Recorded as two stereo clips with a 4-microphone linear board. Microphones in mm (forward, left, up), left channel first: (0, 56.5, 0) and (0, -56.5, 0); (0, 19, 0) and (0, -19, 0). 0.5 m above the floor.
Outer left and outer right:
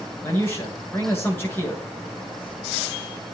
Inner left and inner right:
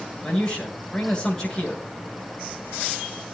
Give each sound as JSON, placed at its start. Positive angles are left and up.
{"t": 0.2, "sound": "a man speaking", "side_deg": 15, "distance_m": 8.0}